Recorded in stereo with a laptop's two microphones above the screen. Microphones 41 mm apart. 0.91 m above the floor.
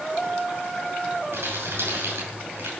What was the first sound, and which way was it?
Crumpling, 90° right.